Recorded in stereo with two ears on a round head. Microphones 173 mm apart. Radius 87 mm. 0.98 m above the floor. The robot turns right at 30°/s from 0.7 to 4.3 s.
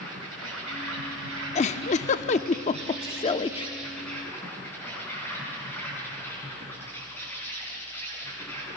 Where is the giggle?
35° left (ahead or behind), 0.6 m; by 3.7 s 25° left (ahead or behind), 0.6 m.